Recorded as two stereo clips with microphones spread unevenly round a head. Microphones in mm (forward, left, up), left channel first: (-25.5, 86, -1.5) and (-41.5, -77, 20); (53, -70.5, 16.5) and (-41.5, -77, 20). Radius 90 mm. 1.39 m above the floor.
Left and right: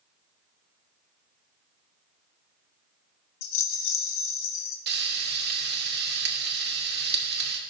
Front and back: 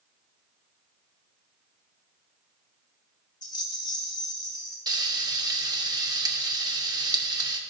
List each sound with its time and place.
3.4 s a rattle: 70° left, 1.1 m
4.9 s frying: 125° right, 1.3 m